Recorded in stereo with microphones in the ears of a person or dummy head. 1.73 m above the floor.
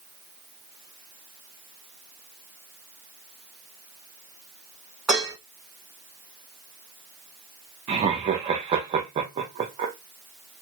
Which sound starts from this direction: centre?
Dishes clattering, at 5.1 s.